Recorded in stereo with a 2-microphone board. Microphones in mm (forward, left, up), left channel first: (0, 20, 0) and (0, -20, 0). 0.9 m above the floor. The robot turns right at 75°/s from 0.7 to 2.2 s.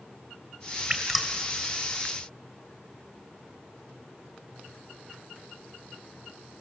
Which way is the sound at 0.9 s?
20° right (ahead or behind).